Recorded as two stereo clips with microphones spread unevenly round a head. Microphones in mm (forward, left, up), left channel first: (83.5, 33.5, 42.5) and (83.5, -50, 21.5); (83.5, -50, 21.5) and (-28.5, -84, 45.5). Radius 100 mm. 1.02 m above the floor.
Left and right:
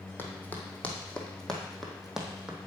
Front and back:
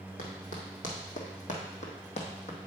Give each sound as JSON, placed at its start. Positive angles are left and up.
{"t": 0.2, "sound": "running footsteps", "azimuth_deg": 40, "distance_m": 1.9}